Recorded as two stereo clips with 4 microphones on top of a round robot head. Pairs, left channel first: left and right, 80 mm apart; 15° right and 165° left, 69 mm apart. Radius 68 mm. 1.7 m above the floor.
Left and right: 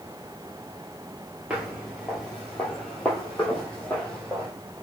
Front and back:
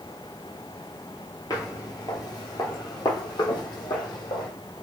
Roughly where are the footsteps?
Ahead.